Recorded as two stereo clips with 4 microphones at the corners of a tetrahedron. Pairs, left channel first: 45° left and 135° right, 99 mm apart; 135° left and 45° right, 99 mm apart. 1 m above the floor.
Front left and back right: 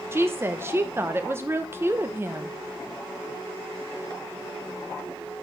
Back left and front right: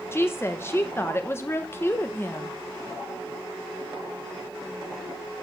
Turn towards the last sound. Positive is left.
turn(degrees=175)